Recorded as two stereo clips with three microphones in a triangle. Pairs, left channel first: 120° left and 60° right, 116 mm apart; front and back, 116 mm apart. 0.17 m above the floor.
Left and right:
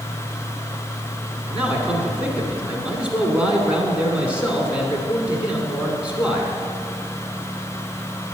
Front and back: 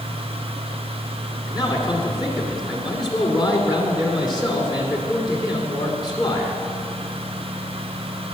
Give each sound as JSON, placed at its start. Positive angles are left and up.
{"t": 1.5, "sound": "a man speaking", "azimuth_deg": 15, "distance_m": 1.5}